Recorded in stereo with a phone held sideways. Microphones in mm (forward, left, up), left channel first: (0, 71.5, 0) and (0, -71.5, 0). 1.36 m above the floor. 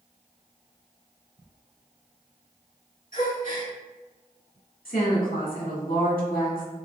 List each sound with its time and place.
3.1 s a gasp: 65° left (ahead or behind), 1.8 m
4.8 s a woman speaking: 85° left, 1.8 m